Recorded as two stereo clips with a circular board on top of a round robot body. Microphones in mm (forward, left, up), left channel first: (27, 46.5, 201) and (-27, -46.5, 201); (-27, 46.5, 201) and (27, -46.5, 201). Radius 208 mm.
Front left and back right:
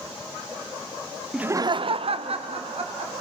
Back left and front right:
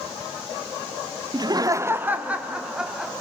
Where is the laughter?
35° right, 0.7 m; by 3.1 s 145° right, 2.5 m.